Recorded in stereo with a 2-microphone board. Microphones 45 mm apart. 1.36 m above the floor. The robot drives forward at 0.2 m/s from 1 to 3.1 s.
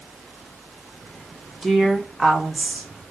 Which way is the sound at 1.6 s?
5° left (ahead or behind).